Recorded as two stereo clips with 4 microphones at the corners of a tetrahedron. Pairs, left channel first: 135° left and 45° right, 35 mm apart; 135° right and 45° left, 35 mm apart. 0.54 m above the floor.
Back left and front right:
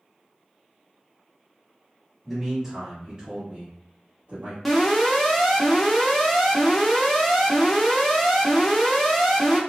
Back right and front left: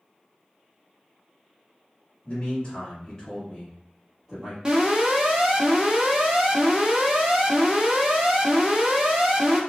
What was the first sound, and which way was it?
A man speaking, 130° right.